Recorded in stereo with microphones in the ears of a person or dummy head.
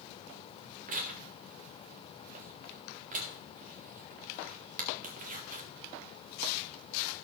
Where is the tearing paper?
40° right (ahead or behind), 1.2 m.